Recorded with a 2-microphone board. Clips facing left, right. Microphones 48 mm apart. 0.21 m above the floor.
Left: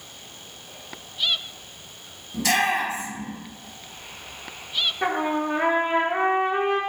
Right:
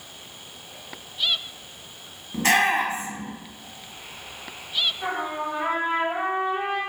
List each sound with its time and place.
2.3 s a shout: 40° right (ahead or behind), 2 m
5.0 s a trumpet: 70° left (ahead or behind), 1.4 m